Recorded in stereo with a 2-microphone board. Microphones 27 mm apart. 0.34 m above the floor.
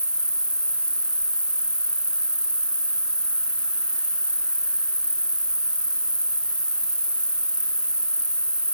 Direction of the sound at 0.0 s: 50° right (ahead or behind).